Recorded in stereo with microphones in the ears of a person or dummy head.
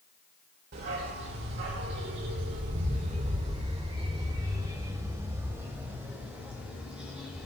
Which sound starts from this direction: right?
A dog barking, at 0.7 s.